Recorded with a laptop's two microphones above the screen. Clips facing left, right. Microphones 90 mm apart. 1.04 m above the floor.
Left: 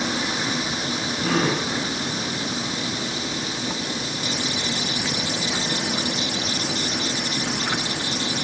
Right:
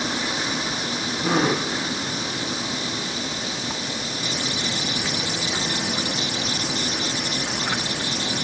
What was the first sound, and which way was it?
A gasp, 20° right (ahead or behind).